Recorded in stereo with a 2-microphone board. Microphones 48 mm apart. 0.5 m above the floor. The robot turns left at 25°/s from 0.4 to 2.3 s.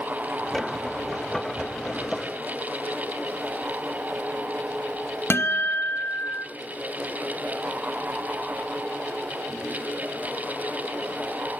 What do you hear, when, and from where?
5.3 s a guitar: 60° left (ahead or behind), 0.5 m